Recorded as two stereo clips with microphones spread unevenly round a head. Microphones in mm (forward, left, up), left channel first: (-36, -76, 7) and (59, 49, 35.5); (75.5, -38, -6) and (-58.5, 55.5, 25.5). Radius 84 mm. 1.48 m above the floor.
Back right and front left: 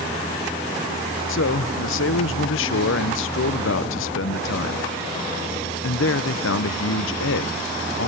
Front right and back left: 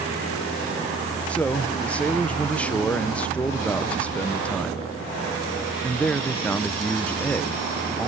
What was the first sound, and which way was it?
A man speaking, 120° right.